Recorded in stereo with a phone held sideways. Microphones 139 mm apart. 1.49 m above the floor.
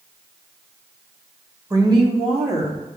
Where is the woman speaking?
25° right (ahead or behind), 2 m; by 2.8 s 55° right (ahead or behind), 3 m.